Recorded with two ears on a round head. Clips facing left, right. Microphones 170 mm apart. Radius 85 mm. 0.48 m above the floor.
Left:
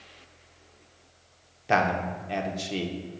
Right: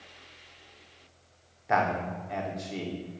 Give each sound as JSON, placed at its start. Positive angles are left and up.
{"t": 1.7, "sound": "a man speaking", "side_deg": 35, "distance_m": 0.8}